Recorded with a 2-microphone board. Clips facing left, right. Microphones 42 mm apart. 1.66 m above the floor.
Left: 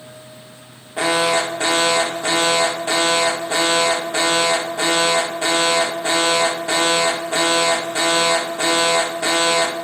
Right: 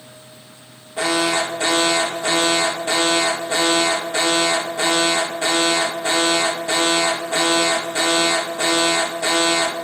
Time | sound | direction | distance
1.0 | an alarm | 25° left (ahead or behind) | 1.0 m